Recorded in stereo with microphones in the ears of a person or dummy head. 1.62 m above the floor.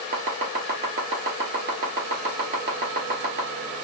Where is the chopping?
45° right (ahead or behind), 1.4 m.